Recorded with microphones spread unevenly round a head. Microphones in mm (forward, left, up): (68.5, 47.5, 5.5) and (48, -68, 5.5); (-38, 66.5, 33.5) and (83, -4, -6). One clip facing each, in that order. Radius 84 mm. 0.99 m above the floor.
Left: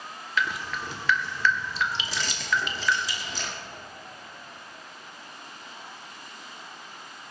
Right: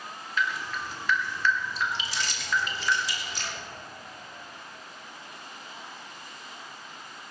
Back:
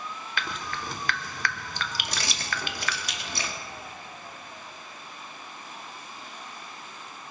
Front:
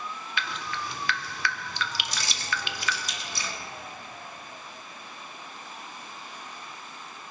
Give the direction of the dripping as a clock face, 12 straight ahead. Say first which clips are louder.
Left 1 dB, even; 9 o'clock.